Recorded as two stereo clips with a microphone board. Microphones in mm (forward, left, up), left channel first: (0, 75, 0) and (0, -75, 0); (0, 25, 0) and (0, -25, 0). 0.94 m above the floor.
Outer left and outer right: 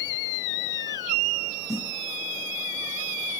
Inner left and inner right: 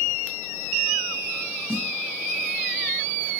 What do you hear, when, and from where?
1.7 s a snare drum: 50° right (ahead or behind), 5 m